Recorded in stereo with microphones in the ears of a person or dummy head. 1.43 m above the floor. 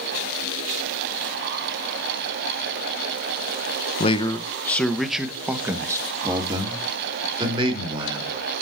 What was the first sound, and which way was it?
A man speaking, 35° left (ahead or behind).